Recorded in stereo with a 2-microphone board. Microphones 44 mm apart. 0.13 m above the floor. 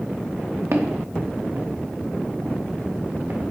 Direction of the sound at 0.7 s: 80° right.